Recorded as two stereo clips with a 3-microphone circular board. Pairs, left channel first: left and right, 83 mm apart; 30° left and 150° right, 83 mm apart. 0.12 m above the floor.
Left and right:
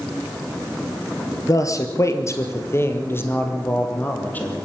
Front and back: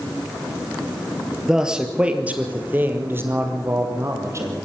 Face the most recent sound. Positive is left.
turn(degrees=160)